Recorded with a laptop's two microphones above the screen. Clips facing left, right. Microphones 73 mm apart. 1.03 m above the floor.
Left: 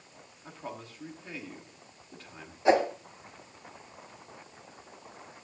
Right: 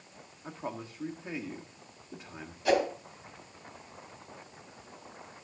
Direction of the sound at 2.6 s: 25° left (ahead or behind).